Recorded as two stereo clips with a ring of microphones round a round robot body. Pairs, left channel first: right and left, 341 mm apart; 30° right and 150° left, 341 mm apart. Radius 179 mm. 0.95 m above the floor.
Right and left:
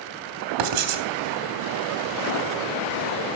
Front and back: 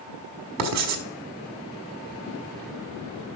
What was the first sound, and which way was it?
Writing, 100° left.